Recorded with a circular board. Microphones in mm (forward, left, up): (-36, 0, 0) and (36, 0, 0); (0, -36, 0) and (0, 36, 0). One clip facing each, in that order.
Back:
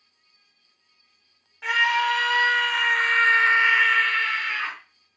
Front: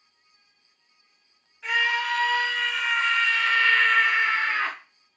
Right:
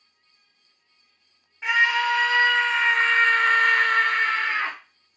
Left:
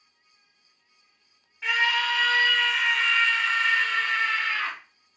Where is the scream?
165° right, 1.4 m; by 4.8 s 35° right, 0.7 m.